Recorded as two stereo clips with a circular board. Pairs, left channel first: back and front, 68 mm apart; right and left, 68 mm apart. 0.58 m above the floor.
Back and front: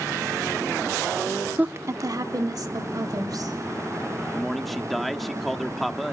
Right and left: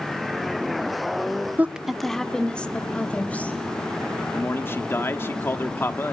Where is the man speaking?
95° right, 1.1 m.